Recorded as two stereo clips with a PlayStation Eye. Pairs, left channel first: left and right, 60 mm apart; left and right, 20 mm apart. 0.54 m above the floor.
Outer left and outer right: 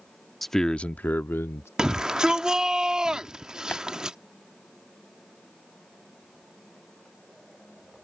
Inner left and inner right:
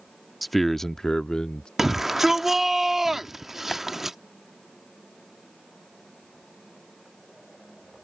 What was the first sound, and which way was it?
A man speaking, 5° left (ahead or behind).